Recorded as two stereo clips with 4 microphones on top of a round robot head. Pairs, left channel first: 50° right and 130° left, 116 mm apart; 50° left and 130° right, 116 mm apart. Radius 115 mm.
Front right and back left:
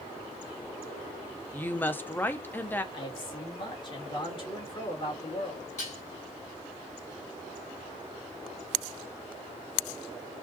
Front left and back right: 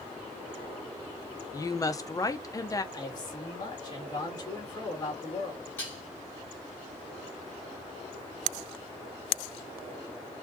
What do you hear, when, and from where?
1.5 s a woman speaking: 15° left, 0.9 m
2.9 s a man speaking: 5° right, 2.5 m
5.8 s dishes clattering: 25° right, 3 m